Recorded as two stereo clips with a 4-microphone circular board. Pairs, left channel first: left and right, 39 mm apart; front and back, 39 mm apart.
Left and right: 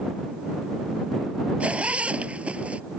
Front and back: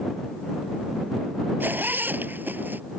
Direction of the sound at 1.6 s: 145° right.